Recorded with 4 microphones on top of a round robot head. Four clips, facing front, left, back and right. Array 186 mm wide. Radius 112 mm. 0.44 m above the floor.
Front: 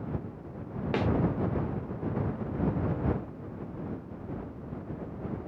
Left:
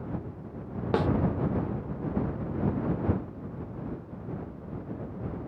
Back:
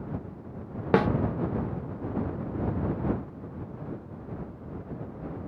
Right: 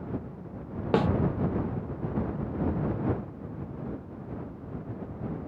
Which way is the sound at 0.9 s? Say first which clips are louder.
Right 2 dB, back 8 dB; 165° right.